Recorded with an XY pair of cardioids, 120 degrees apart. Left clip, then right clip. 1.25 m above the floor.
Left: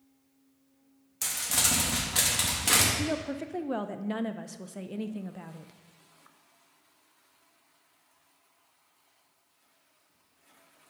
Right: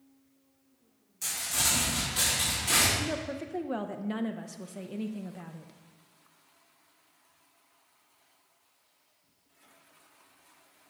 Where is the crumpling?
60° left, 2 m.